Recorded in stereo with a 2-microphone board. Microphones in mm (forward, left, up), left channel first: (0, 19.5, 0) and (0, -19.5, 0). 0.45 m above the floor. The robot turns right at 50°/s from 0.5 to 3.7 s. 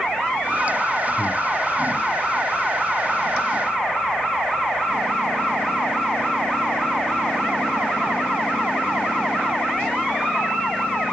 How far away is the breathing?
About 1.5 m.